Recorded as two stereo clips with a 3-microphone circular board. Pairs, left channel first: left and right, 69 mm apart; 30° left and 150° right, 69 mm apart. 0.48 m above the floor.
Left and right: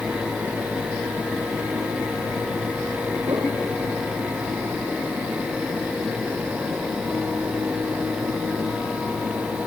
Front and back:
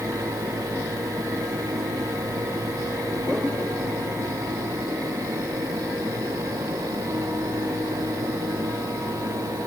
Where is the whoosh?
55° right, 5.5 m.